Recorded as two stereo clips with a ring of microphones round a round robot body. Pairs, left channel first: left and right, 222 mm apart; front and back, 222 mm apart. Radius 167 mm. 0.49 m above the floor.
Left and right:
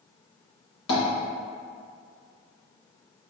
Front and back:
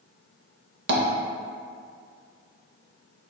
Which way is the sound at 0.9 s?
135° left.